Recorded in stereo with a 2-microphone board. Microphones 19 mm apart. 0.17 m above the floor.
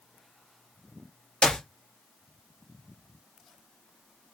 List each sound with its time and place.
1.4 s a clap: 60° left (ahead or behind), 2.0 m